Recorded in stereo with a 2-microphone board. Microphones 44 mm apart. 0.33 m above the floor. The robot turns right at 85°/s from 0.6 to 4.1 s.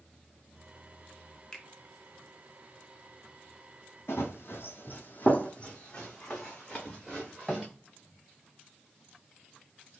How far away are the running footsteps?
About 0.8 m.